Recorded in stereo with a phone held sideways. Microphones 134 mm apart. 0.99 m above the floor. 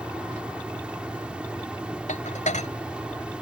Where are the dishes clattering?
70° left (ahead or behind).